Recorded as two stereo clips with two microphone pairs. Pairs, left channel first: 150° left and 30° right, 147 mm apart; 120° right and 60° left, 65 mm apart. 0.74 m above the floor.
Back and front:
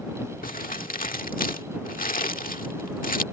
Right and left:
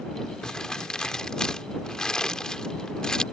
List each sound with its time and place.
0.4 s crumpling: 160° left